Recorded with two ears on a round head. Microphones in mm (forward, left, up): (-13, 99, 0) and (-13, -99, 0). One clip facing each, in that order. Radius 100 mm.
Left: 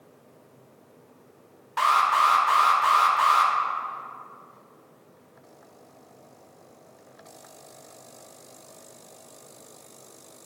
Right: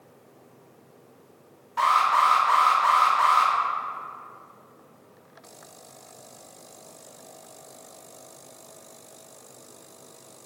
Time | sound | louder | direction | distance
1.8 | an alarm | right 1 dB | 65° left (ahead or behind) | 1.6 m